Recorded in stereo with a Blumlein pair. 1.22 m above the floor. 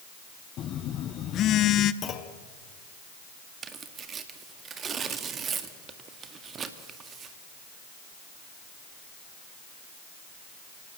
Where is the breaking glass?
I don't hear breaking glass.